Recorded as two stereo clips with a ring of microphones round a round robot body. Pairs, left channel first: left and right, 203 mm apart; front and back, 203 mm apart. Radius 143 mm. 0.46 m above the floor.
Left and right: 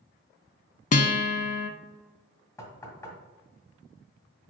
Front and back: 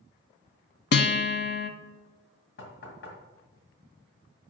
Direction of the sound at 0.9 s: 35° left.